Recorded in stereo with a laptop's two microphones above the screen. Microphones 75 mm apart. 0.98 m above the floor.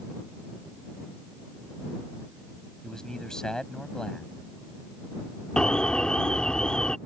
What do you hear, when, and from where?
2.8 s a man speaking: 10° left (ahead or behind)
5.6 s an alarm: 10° left (ahead or behind)